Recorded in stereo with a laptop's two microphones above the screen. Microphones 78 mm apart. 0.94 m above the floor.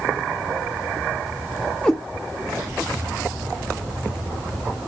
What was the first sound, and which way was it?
A cat meowing, 10° left (ahead or behind).